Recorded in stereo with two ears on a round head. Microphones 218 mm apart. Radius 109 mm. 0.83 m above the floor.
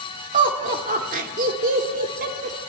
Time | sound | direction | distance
0.3 | laughter | 35° right (ahead or behind) | 2 m